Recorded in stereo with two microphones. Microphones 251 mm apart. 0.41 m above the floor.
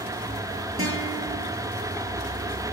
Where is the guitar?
60° right (ahead or behind), 6 m.